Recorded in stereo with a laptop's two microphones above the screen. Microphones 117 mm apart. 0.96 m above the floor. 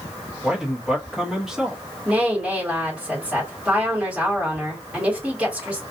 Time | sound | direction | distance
0.4 | a man speaking | 5° right (ahead or behind) | 0.9 m
2.0 | a woman speaking | 10° right (ahead or behind) | 2 m